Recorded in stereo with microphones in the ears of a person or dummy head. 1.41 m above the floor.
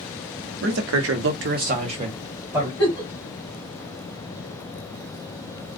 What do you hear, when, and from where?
0.6 s a man speaking: 60° right (ahead or behind), 0.8 m; by 2.7 s 5° right (ahead or behind), 1.1 m
2.8 s a giggle: 30° left (ahead or behind), 1.6 m